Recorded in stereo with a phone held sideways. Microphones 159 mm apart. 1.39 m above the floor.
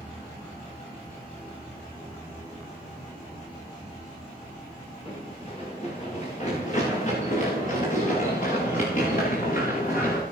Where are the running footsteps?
40° left (ahead or behind), 9 m; by 10.2 s 65° left (ahead or behind), 10 m.